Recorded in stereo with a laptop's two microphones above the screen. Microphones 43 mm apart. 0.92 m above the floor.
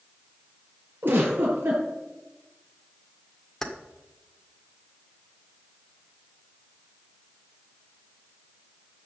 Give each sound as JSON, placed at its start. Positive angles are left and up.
{"t": 1.0, "sound": "a giggle", "side_deg": -55, "distance_m": 6.5}
{"t": 3.6, "sound": "keys jangling", "side_deg": 10, "distance_m": 1.6}